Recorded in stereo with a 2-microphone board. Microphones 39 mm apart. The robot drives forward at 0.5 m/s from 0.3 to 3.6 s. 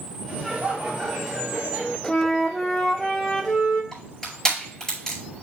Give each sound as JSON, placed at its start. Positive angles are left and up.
{"t": 0.3, "sound": "laughter", "side_deg": -25, "distance_m": 2.5}
{"t": 2.1, "sound": "a flute", "side_deg": 10, "distance_m": 1.7}
{"t": 3.9, "sound": "crushing", "side_deg": 15, "distance_m": 5.5}